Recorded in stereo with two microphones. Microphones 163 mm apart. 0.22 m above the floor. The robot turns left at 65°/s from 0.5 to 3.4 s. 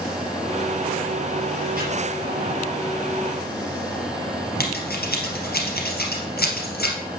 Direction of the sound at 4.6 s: 80° left.